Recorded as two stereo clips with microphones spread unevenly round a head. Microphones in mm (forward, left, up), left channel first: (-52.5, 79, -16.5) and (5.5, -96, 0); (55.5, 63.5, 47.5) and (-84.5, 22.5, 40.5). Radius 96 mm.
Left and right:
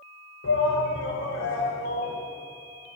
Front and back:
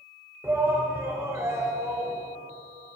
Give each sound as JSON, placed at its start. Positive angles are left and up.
{"t": 0.4, "sound": "a shout", "azimuth_deg": 120, "distance_m": 4.0}